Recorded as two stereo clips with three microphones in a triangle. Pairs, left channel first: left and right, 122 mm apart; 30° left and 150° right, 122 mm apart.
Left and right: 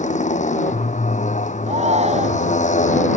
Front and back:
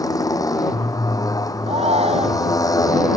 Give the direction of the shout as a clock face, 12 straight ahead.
4 o'clock.